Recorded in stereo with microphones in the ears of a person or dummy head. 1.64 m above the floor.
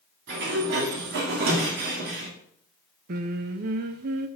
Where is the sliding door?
65° right (ahead or behind), 2.0 m.